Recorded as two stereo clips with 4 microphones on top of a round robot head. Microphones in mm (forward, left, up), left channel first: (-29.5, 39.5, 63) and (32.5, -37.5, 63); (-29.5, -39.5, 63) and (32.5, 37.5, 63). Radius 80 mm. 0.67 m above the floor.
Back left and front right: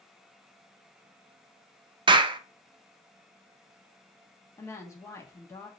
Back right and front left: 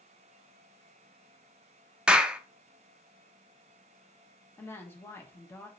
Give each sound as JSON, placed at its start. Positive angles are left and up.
{"t": 2.1, "sound": "a clap", "azimuth_deg": -25, "distance_m": 0.5}
{"t": 4.6, "sound": "a woman speaking", "azimuth_deg": 175, "distance_m": 1.3}